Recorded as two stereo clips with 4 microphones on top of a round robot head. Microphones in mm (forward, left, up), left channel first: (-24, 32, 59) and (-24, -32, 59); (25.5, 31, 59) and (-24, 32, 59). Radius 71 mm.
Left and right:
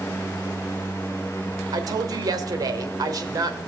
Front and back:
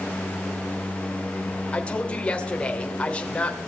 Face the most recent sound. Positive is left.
turn(degrees=-70)